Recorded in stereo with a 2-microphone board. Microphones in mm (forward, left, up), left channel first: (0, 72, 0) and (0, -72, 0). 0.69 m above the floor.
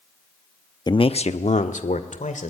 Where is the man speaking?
30° left (ahead or behind), 0.6 m; by 2.5 s 70° left (ahead or behind), 2.5 m.